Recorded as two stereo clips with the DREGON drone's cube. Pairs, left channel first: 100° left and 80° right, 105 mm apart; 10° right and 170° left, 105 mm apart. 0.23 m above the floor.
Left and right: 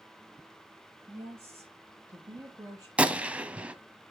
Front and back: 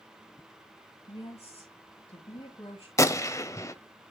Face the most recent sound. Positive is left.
turn(degrees=-15)